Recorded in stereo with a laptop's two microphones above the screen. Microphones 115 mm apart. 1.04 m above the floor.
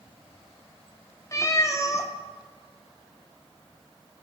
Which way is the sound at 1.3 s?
30° left (ahead or behind).